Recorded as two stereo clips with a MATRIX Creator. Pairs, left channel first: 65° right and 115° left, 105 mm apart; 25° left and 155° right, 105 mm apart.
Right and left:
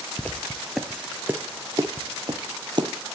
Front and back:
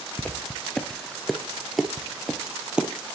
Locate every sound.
0.2 s footsteps: 30° right, 1.0 m; by 2.9 s 125° left, 1.5 m